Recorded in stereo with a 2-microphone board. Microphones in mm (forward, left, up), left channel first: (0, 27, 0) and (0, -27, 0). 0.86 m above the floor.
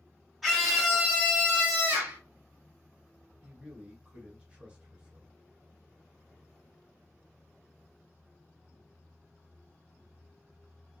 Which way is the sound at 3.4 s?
20° right (ahead or behind).